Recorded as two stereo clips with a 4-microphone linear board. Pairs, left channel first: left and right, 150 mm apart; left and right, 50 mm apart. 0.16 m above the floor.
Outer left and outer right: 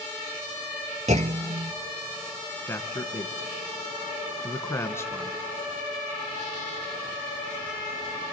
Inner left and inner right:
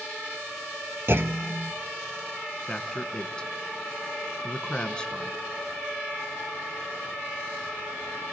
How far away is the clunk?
About 0.6 m.